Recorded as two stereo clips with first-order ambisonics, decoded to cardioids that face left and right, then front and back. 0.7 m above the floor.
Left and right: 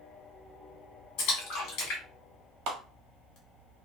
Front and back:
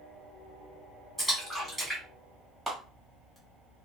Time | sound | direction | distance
1.2 | a splash | 90° left | 1.5 m
2.7 | a clap | 100° right | 1.1 m